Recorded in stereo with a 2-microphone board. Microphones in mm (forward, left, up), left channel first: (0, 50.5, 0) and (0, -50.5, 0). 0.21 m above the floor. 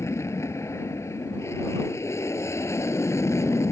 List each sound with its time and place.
0.0 s an aircraft: 25° left (ahead or behind)